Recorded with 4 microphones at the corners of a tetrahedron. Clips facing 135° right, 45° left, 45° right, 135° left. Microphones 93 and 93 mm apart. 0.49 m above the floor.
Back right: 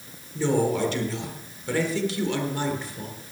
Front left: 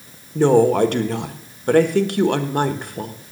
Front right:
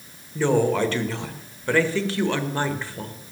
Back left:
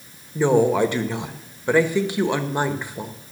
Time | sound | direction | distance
0.3 | a woman speaking | 65° left | 1.2 m